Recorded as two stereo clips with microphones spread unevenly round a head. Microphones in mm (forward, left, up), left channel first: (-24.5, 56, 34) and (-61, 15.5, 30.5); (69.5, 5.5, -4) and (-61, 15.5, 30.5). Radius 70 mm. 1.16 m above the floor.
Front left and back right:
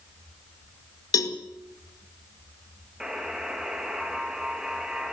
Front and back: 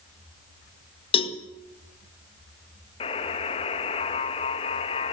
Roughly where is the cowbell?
Ahead left.